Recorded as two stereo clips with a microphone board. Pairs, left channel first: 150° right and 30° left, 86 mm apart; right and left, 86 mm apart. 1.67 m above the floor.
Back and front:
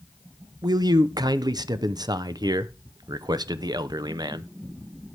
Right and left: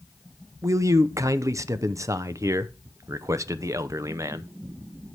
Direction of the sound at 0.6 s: 45° left.